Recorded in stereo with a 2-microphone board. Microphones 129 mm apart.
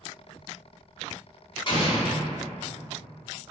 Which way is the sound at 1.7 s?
40° left (ahead or behind).